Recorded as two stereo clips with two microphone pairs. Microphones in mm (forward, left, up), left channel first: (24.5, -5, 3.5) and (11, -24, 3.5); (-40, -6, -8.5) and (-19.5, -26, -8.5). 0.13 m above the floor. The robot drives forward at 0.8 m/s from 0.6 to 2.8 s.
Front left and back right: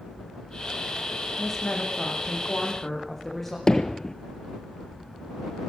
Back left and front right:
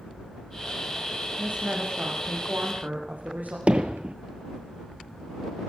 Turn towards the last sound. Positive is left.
turn(degrees=0)